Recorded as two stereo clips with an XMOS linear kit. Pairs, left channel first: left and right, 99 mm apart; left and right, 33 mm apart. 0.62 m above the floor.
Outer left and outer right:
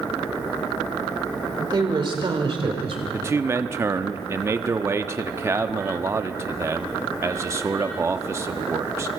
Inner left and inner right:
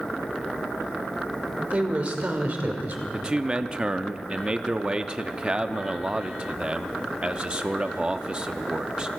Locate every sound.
1.6 s a woman speaking: 45° right (ahead or behind), 2 m; by 3.0 s 65° right (ahead or behind), 1.9 m
3.1 s a man speaking: 25° right (ahead or behind), 0.6 m